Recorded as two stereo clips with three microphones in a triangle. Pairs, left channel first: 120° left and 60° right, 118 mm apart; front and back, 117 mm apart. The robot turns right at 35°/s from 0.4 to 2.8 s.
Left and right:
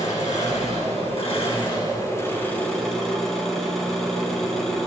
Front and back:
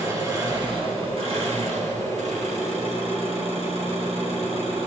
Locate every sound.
0.0 s an engine running: 120° left, 3 m; by 4.9 s 155° right, 3 m